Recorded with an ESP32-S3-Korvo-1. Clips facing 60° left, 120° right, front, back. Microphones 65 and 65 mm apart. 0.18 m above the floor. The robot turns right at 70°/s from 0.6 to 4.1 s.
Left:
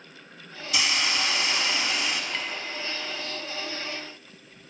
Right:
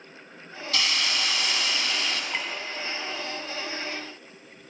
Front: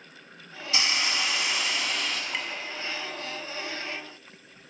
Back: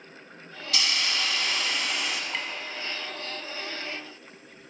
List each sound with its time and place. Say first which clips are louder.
0.7 s a hiss: left 1 dB, front 1 dB; 10° left, 0.6 m; by 2.2 s 115° left, 0.6 m
2.3 s a clink: right 1 dB, even; 85° right, 0.6 m; by 2.5 s 70° right, 0.6 m